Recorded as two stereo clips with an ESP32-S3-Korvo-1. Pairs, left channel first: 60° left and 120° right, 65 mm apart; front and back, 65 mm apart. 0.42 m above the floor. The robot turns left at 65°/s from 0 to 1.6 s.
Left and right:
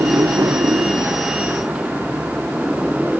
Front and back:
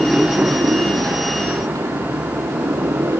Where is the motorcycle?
95° right; by 3.2 s 160° left.